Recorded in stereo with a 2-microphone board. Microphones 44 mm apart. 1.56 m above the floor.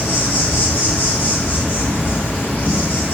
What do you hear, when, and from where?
0.0 s an insect: 60° left (ahead or behind), 1.2 m